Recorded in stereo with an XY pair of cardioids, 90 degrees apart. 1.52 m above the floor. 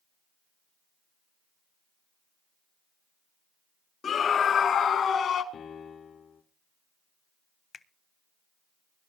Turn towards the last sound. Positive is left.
turn(degrees=45)